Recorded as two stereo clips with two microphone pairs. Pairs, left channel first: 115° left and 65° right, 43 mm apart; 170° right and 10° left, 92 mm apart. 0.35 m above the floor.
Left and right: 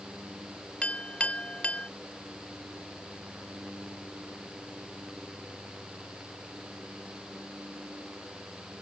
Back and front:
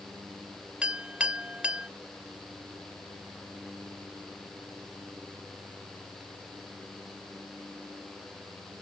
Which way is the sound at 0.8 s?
75° left.